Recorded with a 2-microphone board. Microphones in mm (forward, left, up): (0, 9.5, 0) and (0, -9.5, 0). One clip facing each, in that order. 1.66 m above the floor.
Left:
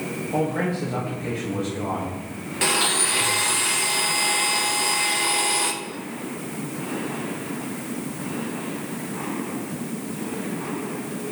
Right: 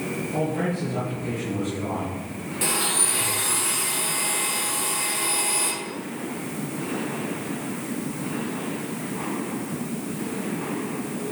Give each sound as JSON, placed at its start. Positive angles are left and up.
{"t": 0.3, "sound": "a man speaking", "side_deg": 45, "distance_m": 1.8}
{"t": 2.6, "sound": "a blender", "side_deg": 35, "distance_m": 0.8}